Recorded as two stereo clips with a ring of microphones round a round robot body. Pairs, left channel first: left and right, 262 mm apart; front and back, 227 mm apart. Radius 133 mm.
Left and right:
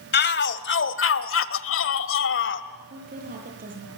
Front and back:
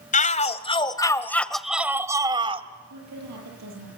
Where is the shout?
50° left, 1.7 m; by 2.7 s 120° left, 1.5 m.